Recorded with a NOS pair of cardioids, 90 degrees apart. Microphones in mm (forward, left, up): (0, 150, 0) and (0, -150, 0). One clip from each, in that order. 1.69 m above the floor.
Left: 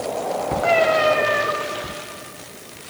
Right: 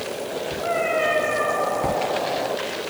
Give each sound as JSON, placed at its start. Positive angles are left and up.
{"t": 0.6, "sound": "a cat meowing", "azimuth_deg": 65, "distance_m": 3.5}